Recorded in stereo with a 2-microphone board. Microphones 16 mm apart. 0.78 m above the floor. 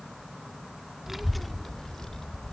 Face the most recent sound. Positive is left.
turn(degrees=45)  # may be behind; listen again after turning